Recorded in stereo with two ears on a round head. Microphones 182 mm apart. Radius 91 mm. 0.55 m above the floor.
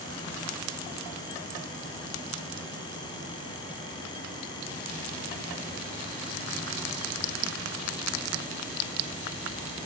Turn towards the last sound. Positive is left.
No sound to turn to.